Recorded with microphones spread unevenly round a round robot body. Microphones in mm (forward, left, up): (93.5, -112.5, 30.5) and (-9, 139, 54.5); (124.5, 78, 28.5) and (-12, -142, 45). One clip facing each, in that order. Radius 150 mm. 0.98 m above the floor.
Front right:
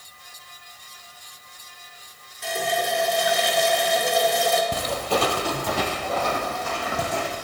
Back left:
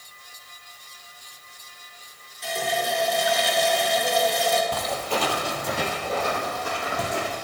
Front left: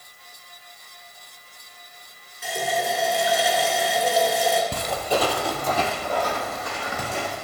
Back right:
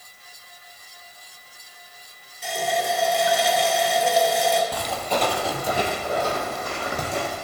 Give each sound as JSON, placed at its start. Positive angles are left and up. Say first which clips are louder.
{"t": 2.4, "sound": "a running tap", "louder": "front right 1 dB, back right 1 dB", "azimuth_deg": -30, "distance_m": 2.0}
{"t": 4.7, "sound": "footsteps", "louder": "front right 3 dB, front left 2 dB", "azimuth_deg": -5, "distance_m": 1.7}